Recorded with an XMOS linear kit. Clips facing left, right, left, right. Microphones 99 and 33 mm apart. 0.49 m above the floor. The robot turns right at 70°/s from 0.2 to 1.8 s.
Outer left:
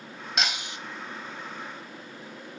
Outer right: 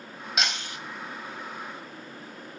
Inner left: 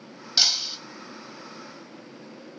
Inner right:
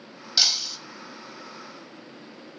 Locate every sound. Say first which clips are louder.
0.4 s breaking glass: even, even; centre (ahead or behind), 1.1 m; by 0.8 s 25° left (ahead or behind), 1.1 m